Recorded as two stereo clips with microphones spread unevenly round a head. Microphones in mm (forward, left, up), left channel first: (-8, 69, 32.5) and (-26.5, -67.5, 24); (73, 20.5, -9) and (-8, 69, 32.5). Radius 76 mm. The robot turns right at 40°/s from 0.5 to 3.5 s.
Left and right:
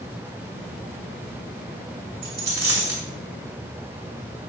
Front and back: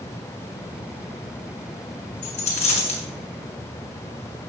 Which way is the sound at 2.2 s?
55° right.